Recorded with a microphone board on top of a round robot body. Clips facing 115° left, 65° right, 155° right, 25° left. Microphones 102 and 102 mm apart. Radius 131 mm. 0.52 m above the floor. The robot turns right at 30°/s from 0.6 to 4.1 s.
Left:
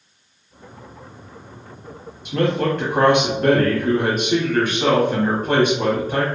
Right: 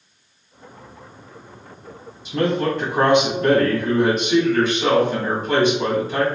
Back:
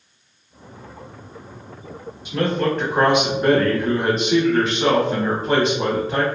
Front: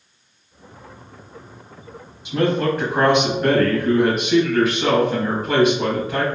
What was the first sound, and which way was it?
A man speaking, 95° left.